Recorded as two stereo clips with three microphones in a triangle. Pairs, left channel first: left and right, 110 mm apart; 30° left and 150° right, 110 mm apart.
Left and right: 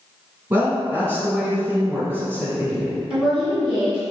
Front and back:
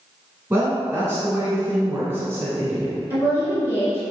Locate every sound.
0.5 s a woman speaking: 125° right, 1.1 m
3.1 s a woman speaking: 15° right, 1.9 m